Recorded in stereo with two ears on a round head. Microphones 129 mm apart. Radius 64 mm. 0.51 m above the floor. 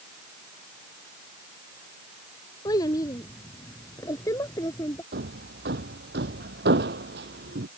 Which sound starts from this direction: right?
Hammering, at 5.1 s.